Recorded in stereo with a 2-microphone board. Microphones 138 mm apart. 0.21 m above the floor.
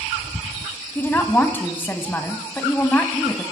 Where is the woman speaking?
15° left (ahead or behind), 1.2 m.